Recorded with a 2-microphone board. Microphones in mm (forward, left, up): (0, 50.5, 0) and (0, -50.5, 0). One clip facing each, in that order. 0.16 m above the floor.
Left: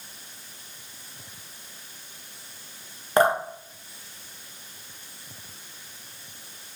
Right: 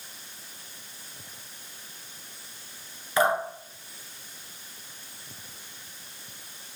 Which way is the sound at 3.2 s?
50° left (ahead or behind).